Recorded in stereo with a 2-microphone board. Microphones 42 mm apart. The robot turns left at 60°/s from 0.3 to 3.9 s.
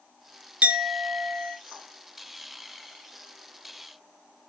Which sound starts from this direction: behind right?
A clink, at 0.6 s.